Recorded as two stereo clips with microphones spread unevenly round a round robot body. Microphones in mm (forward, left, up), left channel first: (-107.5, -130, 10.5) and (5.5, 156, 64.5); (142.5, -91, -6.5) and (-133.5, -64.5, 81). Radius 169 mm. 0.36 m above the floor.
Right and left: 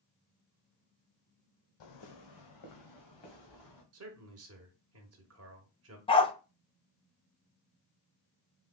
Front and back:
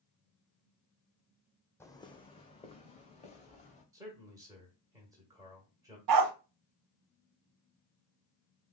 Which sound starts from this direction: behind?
A dog barking, at 6.1 s.